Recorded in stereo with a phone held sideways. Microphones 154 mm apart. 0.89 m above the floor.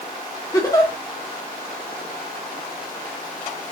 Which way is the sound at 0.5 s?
20° left (ahead or behind).